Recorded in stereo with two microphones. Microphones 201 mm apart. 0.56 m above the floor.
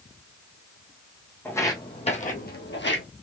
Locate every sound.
1.4 s footsteps: 10° left (ahead or behind), 1.5 m; by 3.0 s 70° left (ahead or behind), 1.3 m